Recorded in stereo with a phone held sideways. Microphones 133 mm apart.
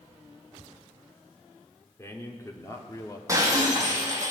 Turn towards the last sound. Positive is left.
turn(degrees=-25)  # may be behind; listen again after turning